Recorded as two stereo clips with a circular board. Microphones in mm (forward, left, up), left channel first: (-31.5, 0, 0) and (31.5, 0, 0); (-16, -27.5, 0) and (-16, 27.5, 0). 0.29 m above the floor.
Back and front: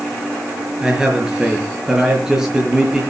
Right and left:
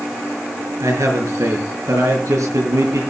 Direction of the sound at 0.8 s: 80° left.